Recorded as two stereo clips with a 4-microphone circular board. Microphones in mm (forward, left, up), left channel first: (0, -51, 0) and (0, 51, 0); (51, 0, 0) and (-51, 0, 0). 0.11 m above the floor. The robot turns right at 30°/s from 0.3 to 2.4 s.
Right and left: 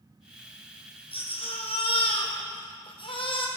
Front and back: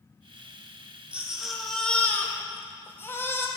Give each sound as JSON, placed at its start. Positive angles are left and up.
{"t": 1.1, "sound": "a baby crying", "azimuth_deg": -105, "distance_m": 1.8}